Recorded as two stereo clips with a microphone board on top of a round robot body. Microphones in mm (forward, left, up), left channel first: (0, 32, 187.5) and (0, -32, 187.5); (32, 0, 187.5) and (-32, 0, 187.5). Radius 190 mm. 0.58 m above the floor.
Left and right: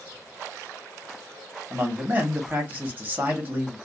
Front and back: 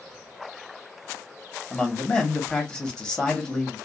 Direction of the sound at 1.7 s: 65° right.